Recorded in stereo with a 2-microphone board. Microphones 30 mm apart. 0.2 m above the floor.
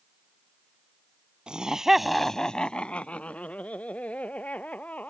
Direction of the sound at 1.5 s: 30° right (ahead or behind).